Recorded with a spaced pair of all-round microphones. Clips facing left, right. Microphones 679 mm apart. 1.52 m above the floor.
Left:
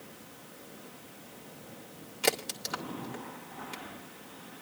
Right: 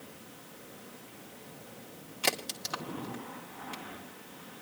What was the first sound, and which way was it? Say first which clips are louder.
A crack: left 5 dB; centre (ahead or behind).